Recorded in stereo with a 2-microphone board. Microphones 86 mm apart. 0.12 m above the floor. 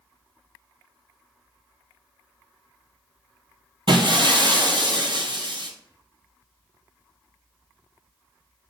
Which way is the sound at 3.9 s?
70° right (ahead or behind).